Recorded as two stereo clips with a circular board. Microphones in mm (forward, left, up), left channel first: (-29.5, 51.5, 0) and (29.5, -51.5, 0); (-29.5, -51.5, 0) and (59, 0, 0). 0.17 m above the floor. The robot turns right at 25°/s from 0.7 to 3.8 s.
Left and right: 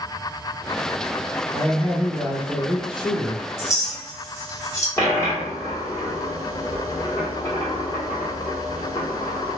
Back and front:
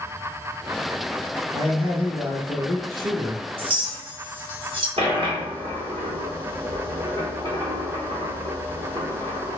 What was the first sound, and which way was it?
A man speaking, 60° left.